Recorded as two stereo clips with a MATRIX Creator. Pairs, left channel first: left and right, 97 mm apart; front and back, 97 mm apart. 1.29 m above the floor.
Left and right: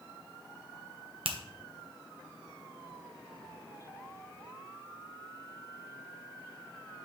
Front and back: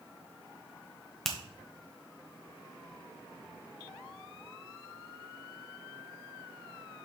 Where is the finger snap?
85° right, 1.0 m.